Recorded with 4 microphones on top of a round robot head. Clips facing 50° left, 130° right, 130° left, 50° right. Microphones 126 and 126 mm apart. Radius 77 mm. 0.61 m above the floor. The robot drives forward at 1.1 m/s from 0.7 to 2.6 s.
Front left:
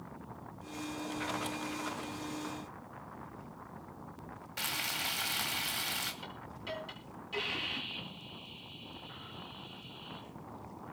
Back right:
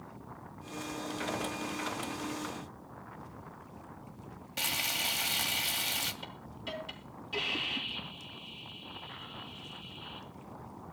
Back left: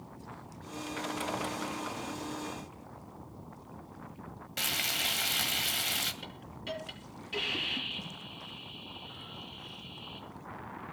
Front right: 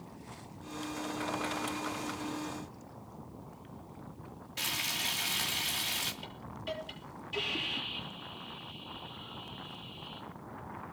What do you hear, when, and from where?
4.6 s frying: 160° left, 2.5 m
6.2 s a hiss: 140° left, 9.5 m